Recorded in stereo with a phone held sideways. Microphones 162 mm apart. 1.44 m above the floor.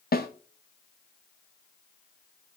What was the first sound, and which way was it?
A snare drum, 70° left (ahead or behind).